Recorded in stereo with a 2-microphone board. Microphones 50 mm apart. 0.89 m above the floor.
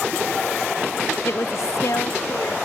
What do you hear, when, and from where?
1.2 s a woman speaking: 50° left (ahead or behind); by 2.5 s 75° left (ahead or behind)